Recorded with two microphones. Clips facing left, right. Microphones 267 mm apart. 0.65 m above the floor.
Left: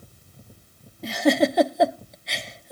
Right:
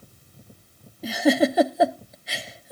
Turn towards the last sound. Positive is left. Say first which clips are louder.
# even
turn(degrees=-5)  # may be behind; listen again after turning